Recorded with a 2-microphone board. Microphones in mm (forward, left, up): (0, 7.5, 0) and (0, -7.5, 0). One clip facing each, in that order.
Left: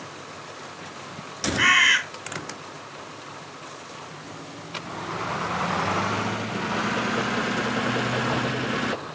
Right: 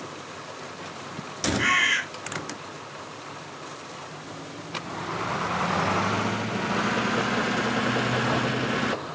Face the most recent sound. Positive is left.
turn(degrees=55)  # may be behind; listen again after turning